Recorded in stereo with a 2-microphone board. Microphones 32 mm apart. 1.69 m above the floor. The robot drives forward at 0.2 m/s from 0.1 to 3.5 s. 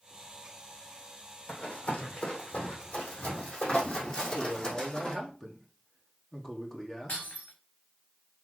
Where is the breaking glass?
75° left (ahead or behind), 4.5 m.